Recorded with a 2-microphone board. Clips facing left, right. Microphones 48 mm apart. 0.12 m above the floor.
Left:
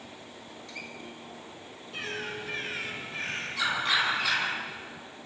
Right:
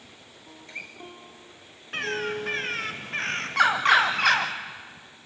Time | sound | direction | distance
0.5 | a guitar | 30° right (ahead or behind) | 3.5 m
1.9 | a bird | 65° right (ahead or behind) | 2 m